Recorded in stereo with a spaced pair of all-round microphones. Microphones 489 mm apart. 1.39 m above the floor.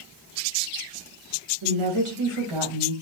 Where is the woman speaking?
80° right, 1.3 m.